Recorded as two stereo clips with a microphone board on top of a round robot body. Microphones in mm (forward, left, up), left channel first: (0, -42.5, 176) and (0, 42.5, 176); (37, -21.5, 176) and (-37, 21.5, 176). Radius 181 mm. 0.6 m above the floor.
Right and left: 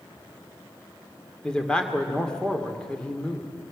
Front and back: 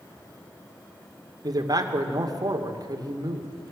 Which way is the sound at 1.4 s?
170° right.